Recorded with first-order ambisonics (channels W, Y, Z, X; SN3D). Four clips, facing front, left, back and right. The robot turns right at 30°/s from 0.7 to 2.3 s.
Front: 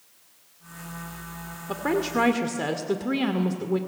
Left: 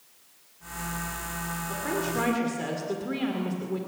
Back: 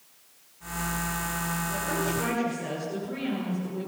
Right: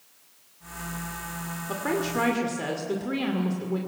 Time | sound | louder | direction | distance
1.7 | a woman speaking | right 3 dB, front 7 dB | 25° right | 1.9 m